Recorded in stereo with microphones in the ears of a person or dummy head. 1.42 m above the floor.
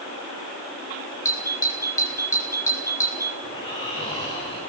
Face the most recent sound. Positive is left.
turn(degrees=30)  # may be behind; listen again after turning